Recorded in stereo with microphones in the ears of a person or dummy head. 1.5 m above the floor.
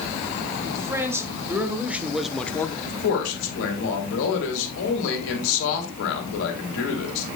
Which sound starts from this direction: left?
A man speaking, at 2.9 s.